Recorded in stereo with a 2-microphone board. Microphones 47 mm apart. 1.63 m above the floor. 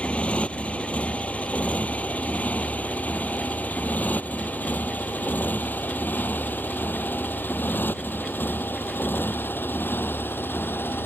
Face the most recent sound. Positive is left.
turn(degrees=50)  # may be behind; listen again after turning